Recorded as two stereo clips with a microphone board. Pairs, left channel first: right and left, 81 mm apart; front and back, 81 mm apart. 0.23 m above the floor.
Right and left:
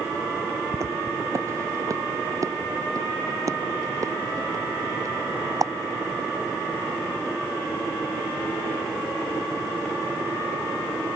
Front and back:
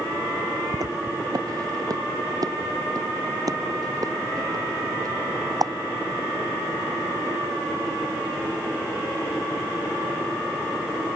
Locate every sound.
0.7 s footsteps: 140° left; by 5.7 s 135° left